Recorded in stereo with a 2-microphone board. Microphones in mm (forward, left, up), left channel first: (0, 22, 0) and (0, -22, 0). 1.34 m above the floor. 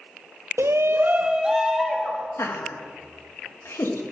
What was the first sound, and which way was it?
A shout, 75° right (ahead or behind).